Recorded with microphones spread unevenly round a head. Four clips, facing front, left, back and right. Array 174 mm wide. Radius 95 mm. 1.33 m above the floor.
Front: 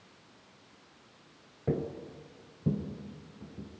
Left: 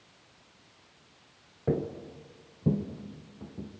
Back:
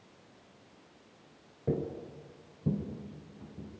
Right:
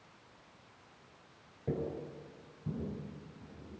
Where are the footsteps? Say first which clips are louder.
Left 6 dB, even; 110° left, 1.4 m; by 3.8 s 80° left, 3.5 m.